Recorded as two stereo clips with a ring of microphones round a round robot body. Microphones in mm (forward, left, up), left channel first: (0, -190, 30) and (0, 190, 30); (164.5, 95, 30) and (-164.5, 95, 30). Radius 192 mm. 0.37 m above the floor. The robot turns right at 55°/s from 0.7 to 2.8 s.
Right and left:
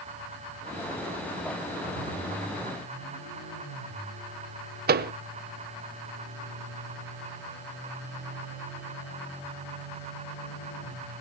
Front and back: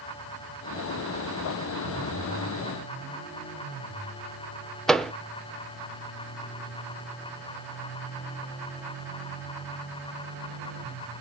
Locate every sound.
4.9 s a microwave: 85° left, 0.9 m